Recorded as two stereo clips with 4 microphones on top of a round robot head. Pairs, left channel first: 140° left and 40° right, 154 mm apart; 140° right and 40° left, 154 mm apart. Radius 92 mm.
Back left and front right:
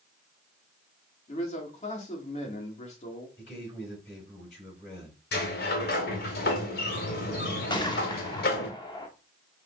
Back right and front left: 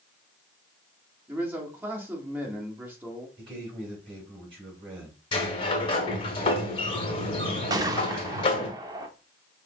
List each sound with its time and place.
1.3 s a man speaking: 115° left, 1.4 m
3.4 s a man speaking: 100° left, 3.5 m
5.3 s a sliding door: 165° left, 0.9 m
7.7 s a gunshot: 95° left, 0.9 m